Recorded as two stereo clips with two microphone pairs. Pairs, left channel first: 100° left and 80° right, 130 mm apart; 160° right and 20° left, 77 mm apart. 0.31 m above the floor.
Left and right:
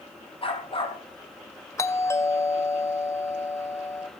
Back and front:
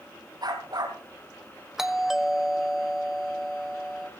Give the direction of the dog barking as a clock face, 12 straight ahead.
10 o'clock.